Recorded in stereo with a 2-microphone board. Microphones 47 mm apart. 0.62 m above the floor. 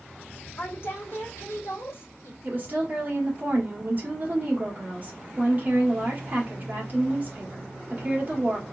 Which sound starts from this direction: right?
A woman speaking, at 2.4 s.